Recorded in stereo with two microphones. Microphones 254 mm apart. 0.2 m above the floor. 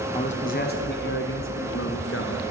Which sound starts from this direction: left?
A man speaking, at 0.1 s.